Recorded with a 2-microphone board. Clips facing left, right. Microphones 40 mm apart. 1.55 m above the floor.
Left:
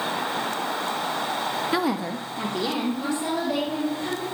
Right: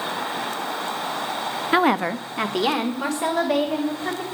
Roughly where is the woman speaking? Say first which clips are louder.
Right 10 dB; right.